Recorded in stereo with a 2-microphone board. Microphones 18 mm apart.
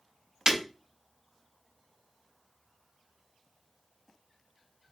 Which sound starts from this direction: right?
Breaking glass, at 0.5 s.